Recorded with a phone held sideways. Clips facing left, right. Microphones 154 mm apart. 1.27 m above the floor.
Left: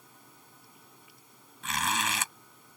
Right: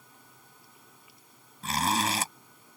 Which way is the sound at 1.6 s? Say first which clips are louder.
Right 4 dB; 35° right (ahead or behind).